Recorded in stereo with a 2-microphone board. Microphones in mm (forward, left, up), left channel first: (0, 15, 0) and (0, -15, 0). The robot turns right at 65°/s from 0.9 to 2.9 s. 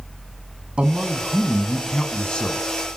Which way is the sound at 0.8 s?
50° right.